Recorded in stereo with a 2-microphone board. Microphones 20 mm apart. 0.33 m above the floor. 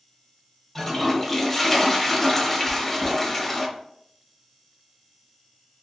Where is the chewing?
50° right (ahead or behind), 1.3 m.